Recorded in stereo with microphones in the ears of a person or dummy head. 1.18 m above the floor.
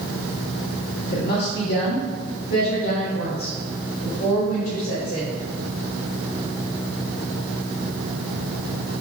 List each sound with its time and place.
1.1 s a woman speaking: 55° left (ahead or behind), 2 m; by 5.3 s 80° left, 6.5 m